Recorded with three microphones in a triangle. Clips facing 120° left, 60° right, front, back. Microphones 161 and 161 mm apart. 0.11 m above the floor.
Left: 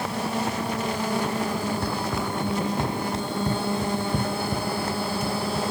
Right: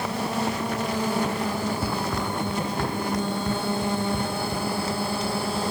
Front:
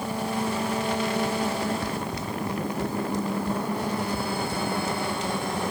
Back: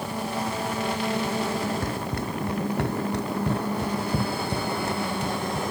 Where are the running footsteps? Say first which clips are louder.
Even, back 1 dB; 145° right; by 5.6 s 150° left.